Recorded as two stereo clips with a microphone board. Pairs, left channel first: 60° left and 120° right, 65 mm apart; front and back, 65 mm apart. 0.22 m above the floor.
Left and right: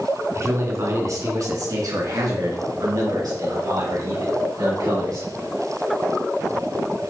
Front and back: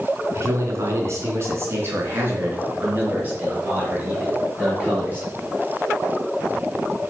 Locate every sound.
0.3 s a man speaking: 155° right, 3 m; by 5.3 s 110° right, 5 m